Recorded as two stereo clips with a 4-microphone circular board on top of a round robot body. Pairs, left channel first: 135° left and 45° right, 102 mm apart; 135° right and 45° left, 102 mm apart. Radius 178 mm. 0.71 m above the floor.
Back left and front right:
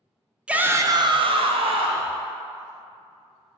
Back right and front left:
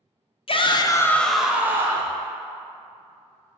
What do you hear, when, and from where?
0.5 s a shout: 125° right, 0.6 m; by 2.1 s 15° right, 0.9 m